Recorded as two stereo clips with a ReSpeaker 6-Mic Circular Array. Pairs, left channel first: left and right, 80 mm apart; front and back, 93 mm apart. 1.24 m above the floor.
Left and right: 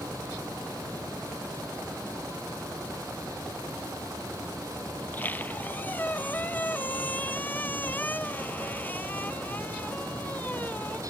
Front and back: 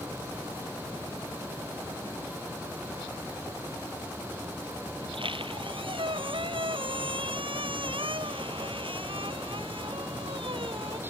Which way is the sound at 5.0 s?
155° left.